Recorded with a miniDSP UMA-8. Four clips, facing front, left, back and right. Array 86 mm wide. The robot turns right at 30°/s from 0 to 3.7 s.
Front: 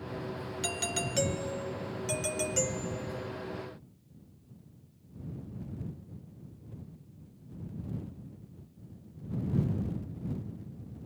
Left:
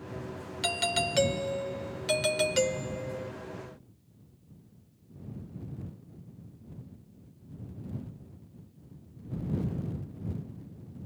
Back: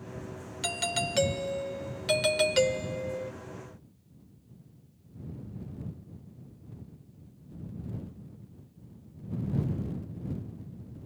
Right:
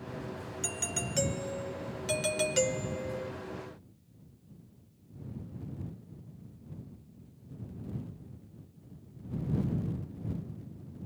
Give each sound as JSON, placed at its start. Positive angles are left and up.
{"t": 0.6, "sound": "a doorbell", "azimuth_deg": 105}